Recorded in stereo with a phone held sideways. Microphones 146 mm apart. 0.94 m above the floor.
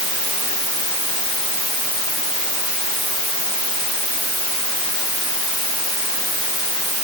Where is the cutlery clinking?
I don't hear cutlery clinking.